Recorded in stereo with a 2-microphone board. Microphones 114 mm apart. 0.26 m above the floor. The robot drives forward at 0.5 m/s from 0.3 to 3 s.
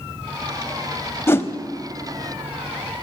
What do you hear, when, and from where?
1.3 s a whoosh: 20° left (ahead or behind), 0.6 m; by 1.5 s 25° left (ahead or behind), 0.5 m